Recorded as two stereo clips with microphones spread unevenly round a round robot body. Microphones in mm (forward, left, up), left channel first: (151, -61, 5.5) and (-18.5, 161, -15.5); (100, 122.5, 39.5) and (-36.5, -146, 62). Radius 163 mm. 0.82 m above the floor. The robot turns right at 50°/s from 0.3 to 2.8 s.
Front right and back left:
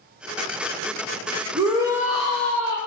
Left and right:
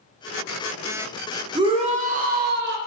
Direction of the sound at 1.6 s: 175° left.